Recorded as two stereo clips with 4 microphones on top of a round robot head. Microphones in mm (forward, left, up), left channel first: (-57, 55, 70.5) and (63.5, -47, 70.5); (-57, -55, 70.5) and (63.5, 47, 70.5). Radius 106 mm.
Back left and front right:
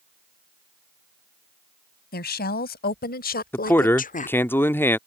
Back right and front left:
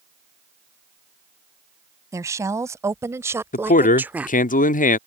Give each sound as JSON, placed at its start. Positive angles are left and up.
{"t": 2.1, "sound": "a woman speaking", "azimuth_deg": 115}
{"t": 3.5, "sound": "a man speaking", "azimuth_deg": -145}